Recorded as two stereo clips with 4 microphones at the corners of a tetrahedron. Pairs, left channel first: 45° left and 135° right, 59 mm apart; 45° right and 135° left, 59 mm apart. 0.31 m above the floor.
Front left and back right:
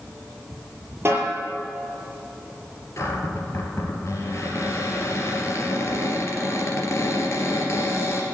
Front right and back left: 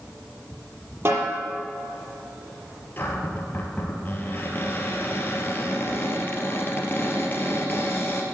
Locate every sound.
1.1 s a snare drum: 175° left, 6 m
3.0 s a cupboard door: 10° left, 3 m